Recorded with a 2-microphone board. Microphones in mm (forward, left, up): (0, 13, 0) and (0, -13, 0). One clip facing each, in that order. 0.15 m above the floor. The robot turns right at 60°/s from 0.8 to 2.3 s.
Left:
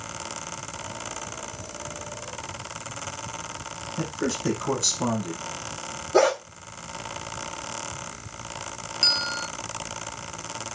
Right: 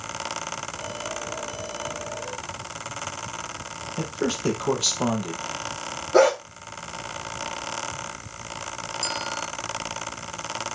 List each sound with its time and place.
4.0 s a man speaking: 50° right (ahead or behind), 4 m
6.1 s a dog barking: 25° right (ahead or behind), 5 m
9.0 s a bell: 50° left (ahead or behind), 0.6 m